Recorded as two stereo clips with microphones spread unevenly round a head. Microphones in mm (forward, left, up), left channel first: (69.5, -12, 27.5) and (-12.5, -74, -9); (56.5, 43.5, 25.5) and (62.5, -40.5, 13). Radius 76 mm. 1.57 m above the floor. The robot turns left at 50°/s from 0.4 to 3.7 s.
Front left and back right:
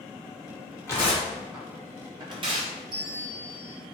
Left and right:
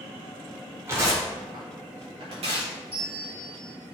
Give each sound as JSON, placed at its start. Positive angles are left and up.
{"t": 0.9, "sound": "tearing paper", "azimuth_deg": -25, "distance_m": 3.0}
{"t": 2.9, "sound": "a bell", "azimuth_deg": -95, "distance_m": 2.0}